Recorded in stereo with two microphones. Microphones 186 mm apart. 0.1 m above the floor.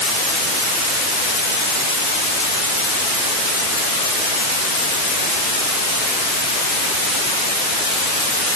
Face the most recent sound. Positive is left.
No sound to turn to.